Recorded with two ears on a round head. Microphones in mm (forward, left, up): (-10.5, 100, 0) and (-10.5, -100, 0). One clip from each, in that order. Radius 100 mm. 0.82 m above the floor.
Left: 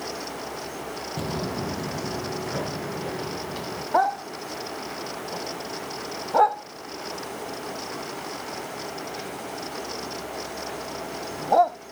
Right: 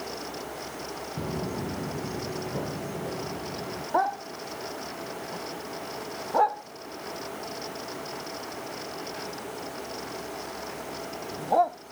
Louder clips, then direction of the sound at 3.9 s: Left 4 dB; 20° left (ahead or behind).